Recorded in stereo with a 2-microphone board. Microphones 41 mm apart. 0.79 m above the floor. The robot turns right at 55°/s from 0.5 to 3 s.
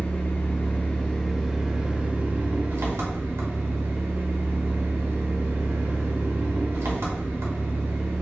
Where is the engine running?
130° left, 0.7 m; by 8.2 s 90° right, 0.7 m.